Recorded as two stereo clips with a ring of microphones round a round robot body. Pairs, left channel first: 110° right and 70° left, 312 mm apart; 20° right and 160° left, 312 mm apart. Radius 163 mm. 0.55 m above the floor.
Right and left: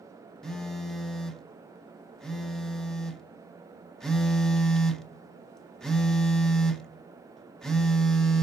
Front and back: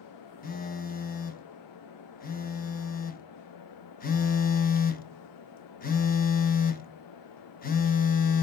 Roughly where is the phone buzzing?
Ahead right.